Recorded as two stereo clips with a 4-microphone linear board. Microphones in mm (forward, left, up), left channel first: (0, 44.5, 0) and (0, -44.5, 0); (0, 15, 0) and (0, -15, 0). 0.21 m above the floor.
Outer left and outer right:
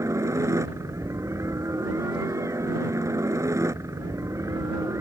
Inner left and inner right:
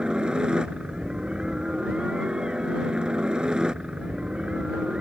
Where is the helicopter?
35° right (ahead or behind).